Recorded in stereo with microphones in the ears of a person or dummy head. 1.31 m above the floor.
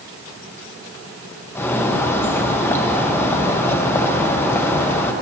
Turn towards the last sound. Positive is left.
turn(degrees=15)  # may be behind; listen again after turning